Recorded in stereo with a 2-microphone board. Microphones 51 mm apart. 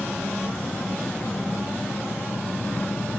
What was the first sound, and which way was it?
An engine running, 45° left (ahead or behind).